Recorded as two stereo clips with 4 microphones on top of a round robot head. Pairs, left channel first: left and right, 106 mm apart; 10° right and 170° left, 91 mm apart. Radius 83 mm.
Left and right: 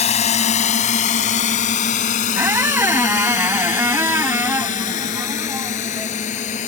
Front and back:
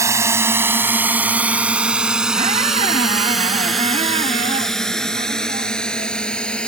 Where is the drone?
110° left; by 6.7 s 70° left.